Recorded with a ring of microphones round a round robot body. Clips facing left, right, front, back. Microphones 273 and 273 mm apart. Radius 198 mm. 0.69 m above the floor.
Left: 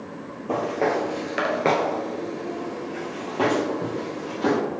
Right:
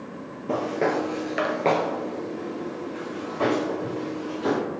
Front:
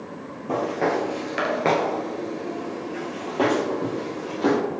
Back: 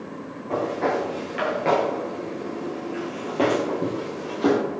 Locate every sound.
0.5 s footsteps: 30° right, 1.3 m; by 4.6 s 110° left, 2.5 m